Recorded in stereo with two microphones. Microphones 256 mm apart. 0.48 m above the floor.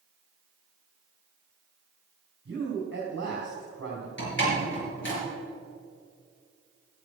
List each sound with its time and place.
2.5 s a man speaking: 45° right (ahead or behind), 3 m
4.2 s a door slam: 45° left (ahead or behind), 5.5 m